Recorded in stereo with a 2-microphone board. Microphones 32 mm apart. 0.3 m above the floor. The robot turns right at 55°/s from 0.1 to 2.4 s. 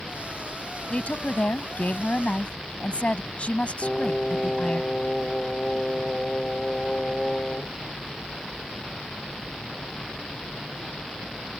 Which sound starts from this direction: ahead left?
A woman speaking, at 0.9 s.